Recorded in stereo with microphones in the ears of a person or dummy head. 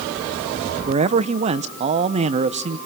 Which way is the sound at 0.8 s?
30° right (ahead or behind).